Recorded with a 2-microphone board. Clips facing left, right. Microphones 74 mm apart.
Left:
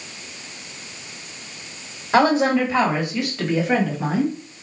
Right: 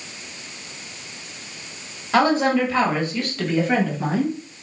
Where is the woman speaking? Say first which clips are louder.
Left 1 dB; 20° left (ahead or behind), 1.0 m; by 4.4 s centre (ahead or behind), 1.6 m.